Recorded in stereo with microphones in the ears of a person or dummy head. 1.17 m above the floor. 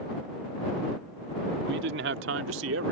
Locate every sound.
1.6 s a man speaking: 60° right (ahead or behind); by 2.9 s 70° right (ahead or behind)